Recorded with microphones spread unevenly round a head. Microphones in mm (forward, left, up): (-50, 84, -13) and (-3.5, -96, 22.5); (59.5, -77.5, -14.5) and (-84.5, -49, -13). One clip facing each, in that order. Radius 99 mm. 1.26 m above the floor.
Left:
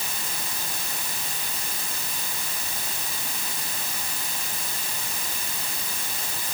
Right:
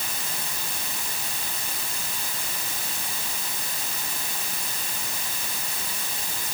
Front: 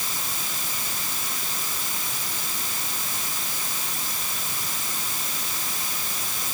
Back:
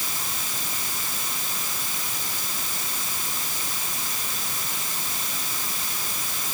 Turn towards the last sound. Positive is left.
No sound to turn to.